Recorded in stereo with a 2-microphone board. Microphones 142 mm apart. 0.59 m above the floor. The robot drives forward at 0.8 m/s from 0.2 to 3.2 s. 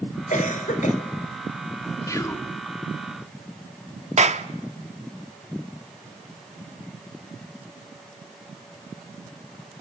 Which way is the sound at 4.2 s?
55° right (ahead or behind).